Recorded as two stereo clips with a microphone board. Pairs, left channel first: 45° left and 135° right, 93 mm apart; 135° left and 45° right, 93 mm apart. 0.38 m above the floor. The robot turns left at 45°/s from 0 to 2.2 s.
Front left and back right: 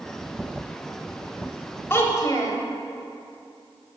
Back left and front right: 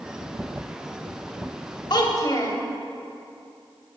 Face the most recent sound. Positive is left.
turn(degrees=95)